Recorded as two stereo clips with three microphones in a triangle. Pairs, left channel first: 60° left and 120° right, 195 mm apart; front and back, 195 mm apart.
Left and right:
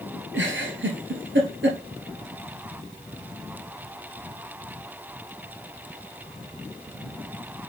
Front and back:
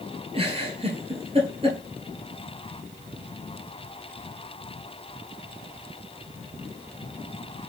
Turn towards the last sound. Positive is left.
turn(degrees=-120)